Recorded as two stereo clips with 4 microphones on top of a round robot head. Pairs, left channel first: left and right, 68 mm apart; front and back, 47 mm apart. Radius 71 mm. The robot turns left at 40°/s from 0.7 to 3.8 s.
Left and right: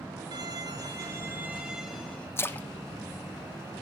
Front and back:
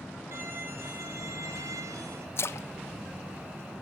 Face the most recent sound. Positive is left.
turn(degrees=-25)